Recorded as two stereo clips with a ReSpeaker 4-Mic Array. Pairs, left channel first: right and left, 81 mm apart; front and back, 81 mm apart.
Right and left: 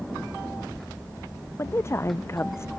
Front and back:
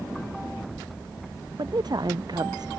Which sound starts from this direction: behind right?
A woman speaking, at 1.6 s.